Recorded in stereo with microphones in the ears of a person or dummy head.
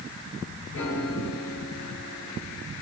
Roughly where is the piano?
Left.